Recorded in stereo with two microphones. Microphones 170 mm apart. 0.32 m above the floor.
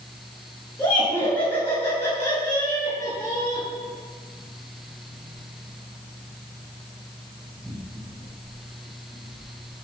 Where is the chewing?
I don't hear chewing.